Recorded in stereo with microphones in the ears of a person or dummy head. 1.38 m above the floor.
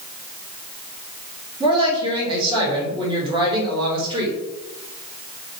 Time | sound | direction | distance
1.6 | a woman speaking | 25° right (ahead or behind) | 3 m